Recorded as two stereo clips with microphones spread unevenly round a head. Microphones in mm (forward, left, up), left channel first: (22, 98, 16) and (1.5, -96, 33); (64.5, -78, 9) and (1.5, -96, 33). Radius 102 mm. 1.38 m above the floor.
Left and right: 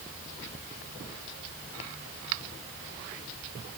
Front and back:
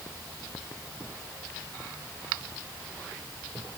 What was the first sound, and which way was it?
Only background noise.